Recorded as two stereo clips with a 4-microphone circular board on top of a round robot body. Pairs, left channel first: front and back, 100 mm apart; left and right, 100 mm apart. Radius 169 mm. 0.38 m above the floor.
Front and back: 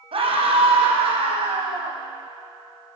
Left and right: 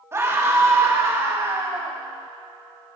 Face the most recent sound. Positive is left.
turn(degrees=-155)